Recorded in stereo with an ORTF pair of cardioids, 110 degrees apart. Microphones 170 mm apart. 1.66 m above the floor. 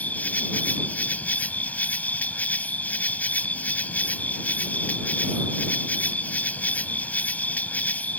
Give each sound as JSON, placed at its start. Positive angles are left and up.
{"t": 0.0, "sound": "an insect", "azimuth_deg": 10}